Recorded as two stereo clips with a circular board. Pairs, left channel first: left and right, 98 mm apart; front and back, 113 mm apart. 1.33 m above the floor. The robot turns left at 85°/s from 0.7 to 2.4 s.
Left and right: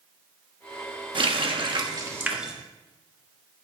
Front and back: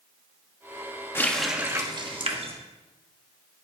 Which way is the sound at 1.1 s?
65° right.